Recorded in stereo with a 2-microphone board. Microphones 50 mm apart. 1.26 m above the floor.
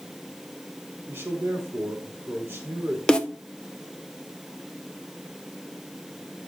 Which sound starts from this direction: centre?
A snare drum, at 3.1 s.